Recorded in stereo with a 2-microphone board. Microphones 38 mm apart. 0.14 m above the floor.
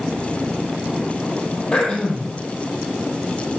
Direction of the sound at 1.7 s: 20° left (ahead or behind).